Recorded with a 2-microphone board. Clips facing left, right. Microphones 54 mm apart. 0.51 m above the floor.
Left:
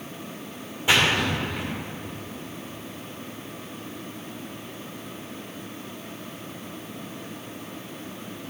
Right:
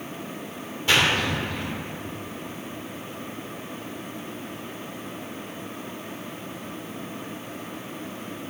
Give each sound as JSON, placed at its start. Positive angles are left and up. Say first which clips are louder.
{"t": 0.9, "sound": "a splash", "louder": "even", "side_deg": 15, "distance_m": 1.8}